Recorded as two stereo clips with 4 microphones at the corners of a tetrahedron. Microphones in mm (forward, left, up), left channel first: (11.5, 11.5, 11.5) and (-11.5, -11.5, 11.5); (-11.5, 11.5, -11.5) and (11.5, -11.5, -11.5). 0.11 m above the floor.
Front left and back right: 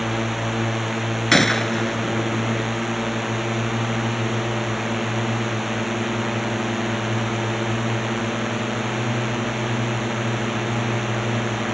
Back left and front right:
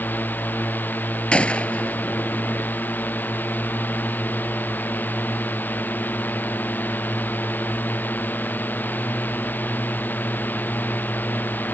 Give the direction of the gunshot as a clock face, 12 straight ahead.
8 o'clock.